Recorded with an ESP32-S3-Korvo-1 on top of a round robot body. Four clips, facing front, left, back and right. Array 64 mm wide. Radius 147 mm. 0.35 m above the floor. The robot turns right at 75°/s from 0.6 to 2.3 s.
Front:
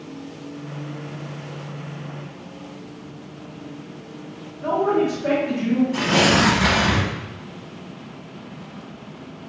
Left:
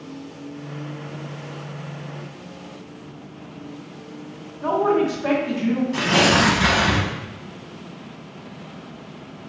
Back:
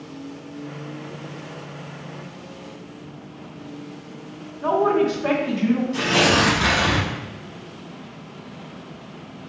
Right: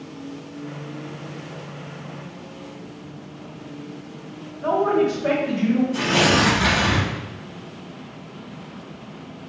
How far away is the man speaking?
About 2.0 m.